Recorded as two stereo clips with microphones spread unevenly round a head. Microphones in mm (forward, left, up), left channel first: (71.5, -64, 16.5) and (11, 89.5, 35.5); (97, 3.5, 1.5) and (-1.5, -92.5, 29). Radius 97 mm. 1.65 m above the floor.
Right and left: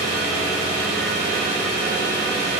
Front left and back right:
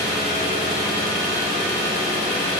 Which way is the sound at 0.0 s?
35° right.